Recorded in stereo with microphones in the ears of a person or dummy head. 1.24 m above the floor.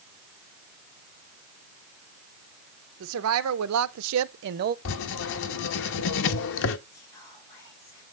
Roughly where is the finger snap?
No finger snap in this recording.